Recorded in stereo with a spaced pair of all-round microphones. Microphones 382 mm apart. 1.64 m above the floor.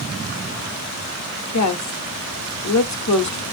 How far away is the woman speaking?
About 0.9 m.